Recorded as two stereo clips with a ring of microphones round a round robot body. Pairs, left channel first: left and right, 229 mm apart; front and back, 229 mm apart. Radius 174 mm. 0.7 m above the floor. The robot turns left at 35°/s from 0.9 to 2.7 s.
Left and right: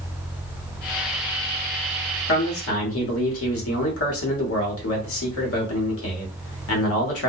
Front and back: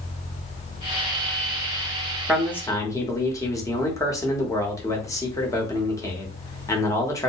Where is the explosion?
I don't hear an explosion.